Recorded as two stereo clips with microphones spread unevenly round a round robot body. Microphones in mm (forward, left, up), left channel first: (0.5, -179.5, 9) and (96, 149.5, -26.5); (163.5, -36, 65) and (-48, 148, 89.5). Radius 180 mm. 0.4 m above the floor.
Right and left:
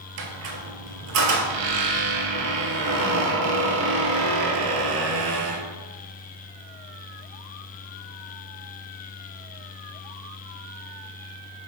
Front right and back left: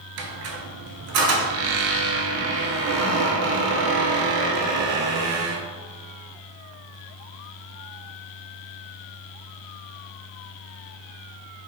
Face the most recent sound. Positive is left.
turn(degrees=120)